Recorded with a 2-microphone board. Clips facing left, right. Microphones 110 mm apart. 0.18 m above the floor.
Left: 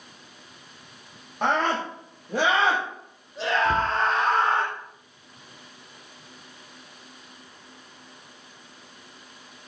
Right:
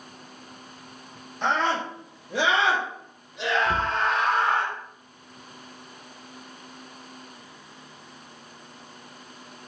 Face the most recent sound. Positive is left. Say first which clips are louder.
# left 2 dB
turn(degrees=15)  # may be behind; listen again after turning